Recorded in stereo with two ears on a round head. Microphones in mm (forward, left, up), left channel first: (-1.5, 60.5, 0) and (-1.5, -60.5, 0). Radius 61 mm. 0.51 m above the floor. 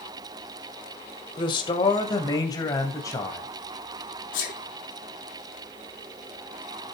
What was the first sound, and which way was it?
A man speaking, 35° left (ahead or behind).